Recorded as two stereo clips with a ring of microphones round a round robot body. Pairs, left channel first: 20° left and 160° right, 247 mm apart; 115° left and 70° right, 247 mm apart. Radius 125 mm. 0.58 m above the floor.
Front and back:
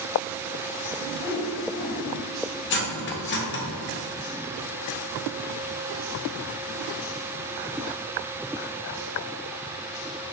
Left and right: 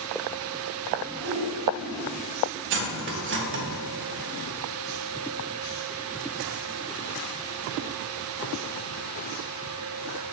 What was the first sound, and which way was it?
A whoosh, 35° left.